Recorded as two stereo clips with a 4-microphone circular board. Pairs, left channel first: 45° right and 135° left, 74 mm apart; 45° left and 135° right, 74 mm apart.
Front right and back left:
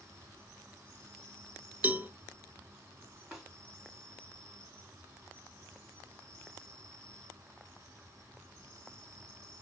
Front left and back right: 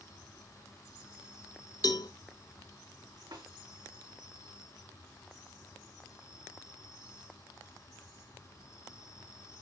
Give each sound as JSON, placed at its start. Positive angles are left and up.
{"t": 0.0, "sound": "an insect", "azimuth_deg": 85, "distance_m": 2.5}
{"t": 1.8, "sound": "a cowbell", "azimuth_deg": 70, "distance_m": 0.7}
{"t": 3.3, "sound": "a snare drum", "azimuth_deg": -140, "distance_m": 4.0}